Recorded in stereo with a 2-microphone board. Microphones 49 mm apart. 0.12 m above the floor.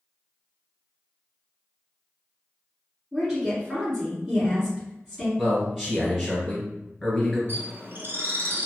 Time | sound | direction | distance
3.1 | a woman speaking | centre (ahead or behind) | 1.4 m
5.4 | a man speaking | centre (ahead or behind) | 1.3 m
7.5 | a bird | 50° right (ahead or behind) | 0.7 m